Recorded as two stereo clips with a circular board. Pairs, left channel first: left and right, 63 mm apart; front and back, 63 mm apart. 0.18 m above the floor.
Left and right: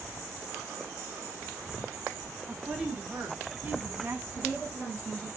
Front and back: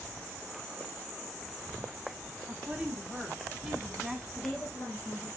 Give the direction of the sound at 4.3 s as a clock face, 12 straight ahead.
11 o'clock.